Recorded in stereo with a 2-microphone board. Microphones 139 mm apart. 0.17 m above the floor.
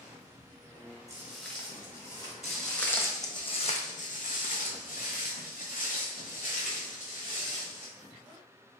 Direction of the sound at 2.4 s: Centre (ahead or behind).